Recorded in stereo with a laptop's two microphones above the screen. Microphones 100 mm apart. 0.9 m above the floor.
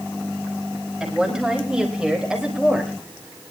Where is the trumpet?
I don't hear a trumpet.